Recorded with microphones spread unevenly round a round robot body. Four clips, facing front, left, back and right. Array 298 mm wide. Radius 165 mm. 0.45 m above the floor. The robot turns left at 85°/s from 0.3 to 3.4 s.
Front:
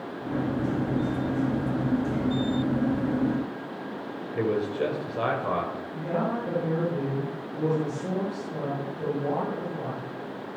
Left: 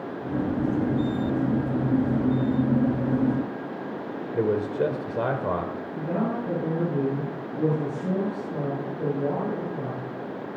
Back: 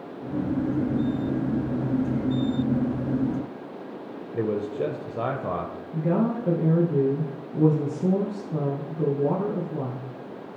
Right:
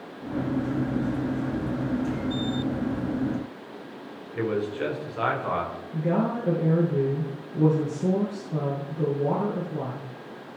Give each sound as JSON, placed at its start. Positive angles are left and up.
{"t": 4.3, "sound": "a man speaking", "azimuth_deg": 115, "distance_m": 2.0}
{"t": 5.9, "sound": "a woman speaking", "azimuth_deg": -155, "distance_m": 9.5}